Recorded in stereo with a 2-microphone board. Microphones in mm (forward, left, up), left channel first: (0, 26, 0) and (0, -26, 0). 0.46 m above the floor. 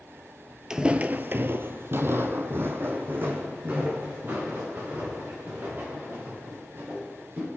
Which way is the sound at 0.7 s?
10° right (ahead or behind).